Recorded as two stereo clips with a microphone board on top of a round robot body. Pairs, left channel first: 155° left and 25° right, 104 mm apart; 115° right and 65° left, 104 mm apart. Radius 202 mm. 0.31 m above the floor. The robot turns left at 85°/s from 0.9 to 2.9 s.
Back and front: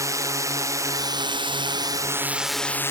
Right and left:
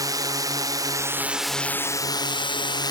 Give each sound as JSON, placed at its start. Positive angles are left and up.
{"t": 0.0, "sound": "a drone", "azimuth_deg": 25}